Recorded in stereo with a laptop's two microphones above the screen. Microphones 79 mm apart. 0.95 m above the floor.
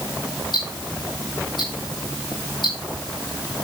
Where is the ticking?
70° left (ahead or behind), 7.5 m.